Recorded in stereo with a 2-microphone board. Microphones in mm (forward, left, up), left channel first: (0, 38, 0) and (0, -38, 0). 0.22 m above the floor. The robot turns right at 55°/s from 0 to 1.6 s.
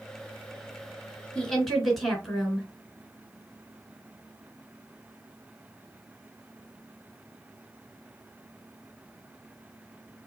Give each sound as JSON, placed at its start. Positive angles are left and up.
{"t": 1.4, "sound": "a woman speaking", "side_deg": 15, "distance_m": 2.5}